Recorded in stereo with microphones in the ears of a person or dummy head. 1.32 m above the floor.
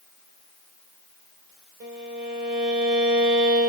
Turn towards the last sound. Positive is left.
turn(degrees=-30)  # may be behind; listen again after turning